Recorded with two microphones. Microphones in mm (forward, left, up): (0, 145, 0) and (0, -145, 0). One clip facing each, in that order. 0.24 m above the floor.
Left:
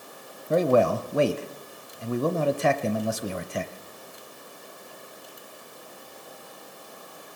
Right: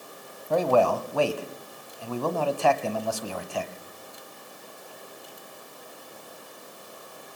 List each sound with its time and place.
0.5 s a man speaking: 25° left (ahead or behind), 1.1 m